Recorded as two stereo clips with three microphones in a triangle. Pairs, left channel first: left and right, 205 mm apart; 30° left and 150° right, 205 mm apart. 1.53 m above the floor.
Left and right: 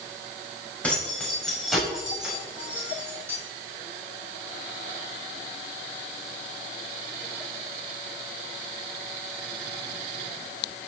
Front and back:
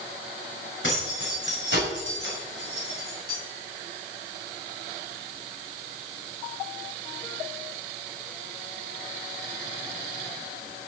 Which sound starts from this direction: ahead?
Keys jangling, at 0.8 s.